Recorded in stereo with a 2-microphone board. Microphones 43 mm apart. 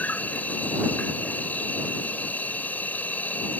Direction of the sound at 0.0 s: 40° left (ahead or behind).